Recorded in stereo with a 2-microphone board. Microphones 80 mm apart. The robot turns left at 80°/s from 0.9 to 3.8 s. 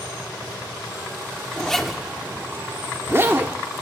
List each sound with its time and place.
1.6 s a zipper: 20° left, 1.4 m; by 3.6 s 140° right, 1.4 m